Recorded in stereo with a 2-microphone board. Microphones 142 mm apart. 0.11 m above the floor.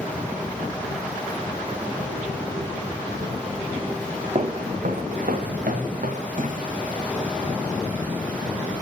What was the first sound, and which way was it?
Footsteps, 45° right (ahead or behind).